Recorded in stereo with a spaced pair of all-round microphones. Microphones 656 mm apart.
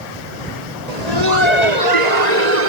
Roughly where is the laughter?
Right.